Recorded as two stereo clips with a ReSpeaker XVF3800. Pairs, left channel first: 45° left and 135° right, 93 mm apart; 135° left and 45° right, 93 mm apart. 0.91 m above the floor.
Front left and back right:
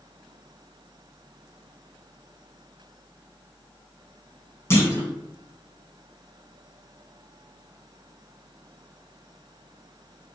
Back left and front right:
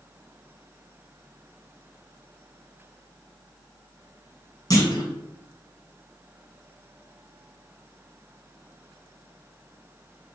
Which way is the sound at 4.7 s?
100° left.